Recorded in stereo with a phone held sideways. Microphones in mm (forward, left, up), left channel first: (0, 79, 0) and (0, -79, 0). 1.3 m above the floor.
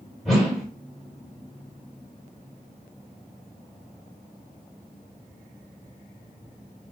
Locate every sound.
0.2 s a whoosh: centre (ahead or behind), 1.1 m